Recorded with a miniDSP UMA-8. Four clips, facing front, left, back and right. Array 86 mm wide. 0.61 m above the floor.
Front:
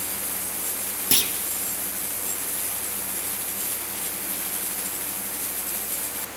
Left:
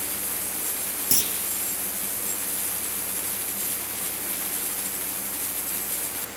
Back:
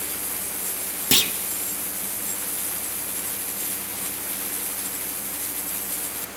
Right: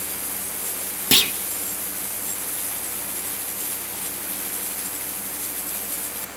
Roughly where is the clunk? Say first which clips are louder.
Right 11 dB, back 5 dB; right.